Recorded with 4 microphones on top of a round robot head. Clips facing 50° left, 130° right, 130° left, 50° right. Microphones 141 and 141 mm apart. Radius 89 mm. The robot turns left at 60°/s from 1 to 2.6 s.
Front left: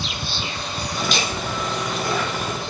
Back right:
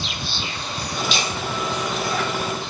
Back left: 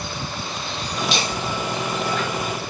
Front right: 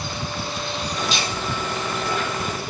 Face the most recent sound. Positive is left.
turn(degrees=10)